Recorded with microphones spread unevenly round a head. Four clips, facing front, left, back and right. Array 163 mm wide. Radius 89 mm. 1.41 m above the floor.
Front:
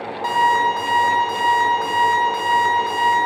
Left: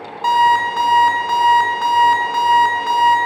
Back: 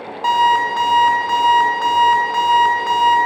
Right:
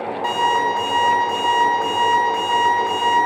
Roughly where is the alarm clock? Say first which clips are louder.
Left 6 dB, back 2 dB; behind left.